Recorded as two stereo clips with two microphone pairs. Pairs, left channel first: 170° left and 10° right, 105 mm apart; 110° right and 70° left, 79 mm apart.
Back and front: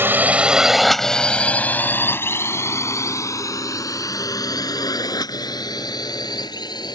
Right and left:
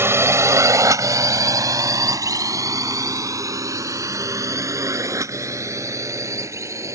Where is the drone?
45° left; by 7.0 s 125° left.